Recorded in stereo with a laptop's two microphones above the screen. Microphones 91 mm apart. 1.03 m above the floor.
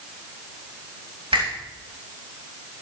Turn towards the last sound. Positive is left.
turn(degrees=-80)